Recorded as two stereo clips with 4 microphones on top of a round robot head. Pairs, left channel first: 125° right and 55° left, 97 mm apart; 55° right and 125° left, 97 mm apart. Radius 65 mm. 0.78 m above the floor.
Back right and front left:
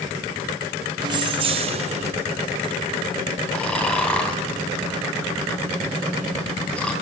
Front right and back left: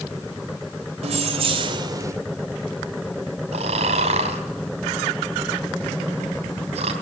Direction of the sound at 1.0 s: 105° left.